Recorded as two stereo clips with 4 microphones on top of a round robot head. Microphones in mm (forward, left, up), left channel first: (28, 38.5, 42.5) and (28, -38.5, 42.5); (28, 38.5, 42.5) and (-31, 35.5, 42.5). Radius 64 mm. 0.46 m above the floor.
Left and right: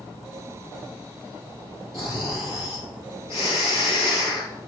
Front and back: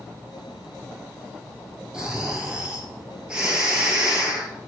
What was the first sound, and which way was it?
Snoring, 110° left.